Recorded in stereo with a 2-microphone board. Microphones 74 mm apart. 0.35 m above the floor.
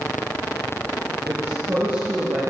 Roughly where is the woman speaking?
Right.